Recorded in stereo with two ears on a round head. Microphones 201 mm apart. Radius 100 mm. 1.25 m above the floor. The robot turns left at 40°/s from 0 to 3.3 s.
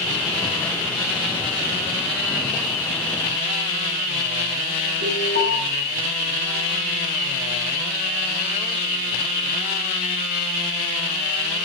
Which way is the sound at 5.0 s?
45° right (ahead or behind).